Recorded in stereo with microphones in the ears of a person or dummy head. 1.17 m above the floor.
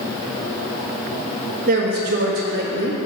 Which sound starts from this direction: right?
A woman speaking, at 1.7 s.